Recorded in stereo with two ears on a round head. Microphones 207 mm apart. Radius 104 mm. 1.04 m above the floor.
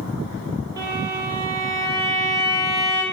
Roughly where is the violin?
Centre.